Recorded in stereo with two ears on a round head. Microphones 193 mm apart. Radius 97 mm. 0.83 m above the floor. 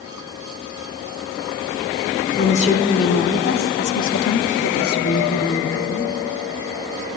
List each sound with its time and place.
2.4 s a woman speaking: 30° left (ahead or behind), 2.5 m; by 6.2 s 45° left (ahead or behind), 1.9 m